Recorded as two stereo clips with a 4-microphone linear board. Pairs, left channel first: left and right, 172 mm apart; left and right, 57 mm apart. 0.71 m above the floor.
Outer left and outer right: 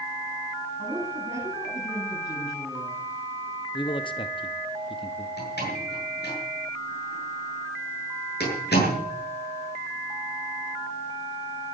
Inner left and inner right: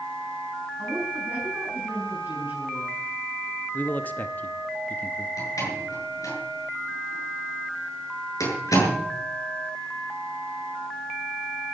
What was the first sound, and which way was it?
A woman speaking, 35° right (ahead or behind).